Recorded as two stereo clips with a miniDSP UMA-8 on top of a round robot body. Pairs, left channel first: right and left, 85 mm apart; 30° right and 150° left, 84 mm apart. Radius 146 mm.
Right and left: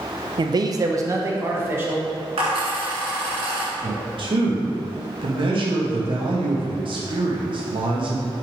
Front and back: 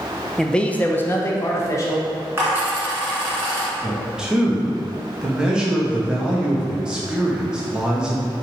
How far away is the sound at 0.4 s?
About 0.5 m.